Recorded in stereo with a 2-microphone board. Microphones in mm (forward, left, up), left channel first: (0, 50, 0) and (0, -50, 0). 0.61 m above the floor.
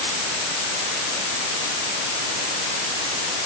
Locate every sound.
Only background noise.